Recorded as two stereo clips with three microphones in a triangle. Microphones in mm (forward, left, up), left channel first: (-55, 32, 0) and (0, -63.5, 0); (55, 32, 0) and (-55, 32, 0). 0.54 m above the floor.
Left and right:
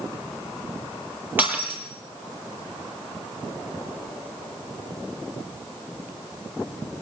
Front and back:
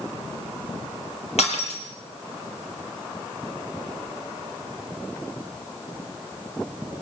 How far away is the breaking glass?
About 6.5 m.